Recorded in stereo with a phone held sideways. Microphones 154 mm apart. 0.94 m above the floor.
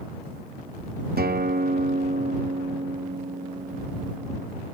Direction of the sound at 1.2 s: 80° right.